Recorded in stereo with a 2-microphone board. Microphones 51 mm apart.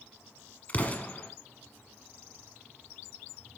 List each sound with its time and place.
0.7 s an explosion: 30° left (ahead or behind), 1.1 m